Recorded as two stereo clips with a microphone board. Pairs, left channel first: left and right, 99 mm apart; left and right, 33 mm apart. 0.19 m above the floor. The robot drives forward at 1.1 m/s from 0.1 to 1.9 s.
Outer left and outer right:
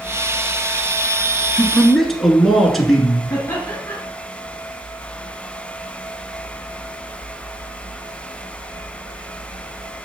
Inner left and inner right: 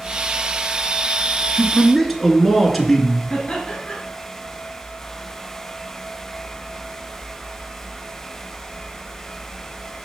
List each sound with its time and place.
1.6 s a man speaking: centre (ahead or behind), 2.5 m
3.3 s laughter: 30° left (ahead or behind), 2.5 m